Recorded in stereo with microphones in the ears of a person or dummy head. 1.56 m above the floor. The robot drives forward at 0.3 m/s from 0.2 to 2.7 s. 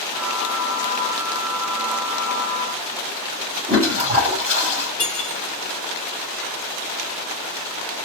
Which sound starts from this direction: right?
A toilet flushing, at 3.7 s.